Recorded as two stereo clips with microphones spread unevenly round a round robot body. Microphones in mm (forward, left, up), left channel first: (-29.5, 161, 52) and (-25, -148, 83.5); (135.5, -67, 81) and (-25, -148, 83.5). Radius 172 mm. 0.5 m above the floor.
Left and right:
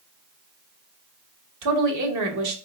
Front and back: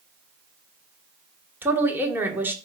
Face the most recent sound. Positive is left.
turn(degrees=-75)